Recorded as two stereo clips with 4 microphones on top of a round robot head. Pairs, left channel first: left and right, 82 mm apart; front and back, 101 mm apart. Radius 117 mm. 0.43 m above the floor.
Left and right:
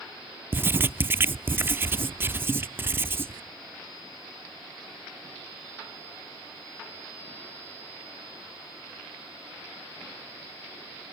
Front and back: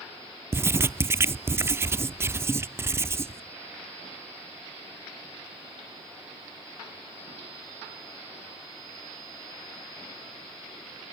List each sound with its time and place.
0.5 s writing: 135° right, 0.5 m